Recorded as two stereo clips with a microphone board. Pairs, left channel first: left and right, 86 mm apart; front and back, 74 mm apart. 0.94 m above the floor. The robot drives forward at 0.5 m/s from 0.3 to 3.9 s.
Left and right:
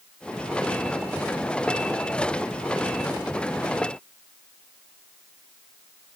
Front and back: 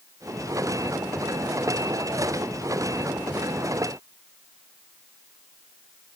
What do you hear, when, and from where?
Only background noise.